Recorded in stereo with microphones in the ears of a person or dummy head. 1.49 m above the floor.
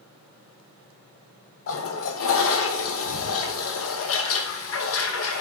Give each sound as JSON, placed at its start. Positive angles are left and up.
{"t": 1.7, "sound": "a toilet flushing", "side_deg": 80, "distance_m": 0.8}